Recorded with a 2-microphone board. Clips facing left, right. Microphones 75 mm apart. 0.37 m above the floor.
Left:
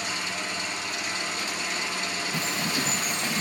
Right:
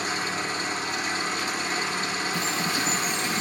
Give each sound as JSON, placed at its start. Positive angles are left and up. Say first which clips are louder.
{"t": 0.0, "sound": "an engine running", "louder": "right 4 dB", "side_deg": -45, "distance_m": 1.6}
{"t": 2.3, "sound": "a bird", "louder": "even", "side_deg": 50, "distance_m": 1.6}